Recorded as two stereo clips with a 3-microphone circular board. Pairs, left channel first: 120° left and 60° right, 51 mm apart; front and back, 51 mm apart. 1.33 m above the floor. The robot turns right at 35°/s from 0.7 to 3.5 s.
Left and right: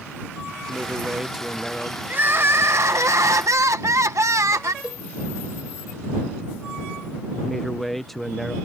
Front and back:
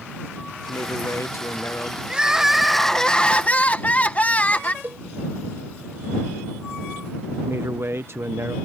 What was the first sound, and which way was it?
A man speaking, straight ahead.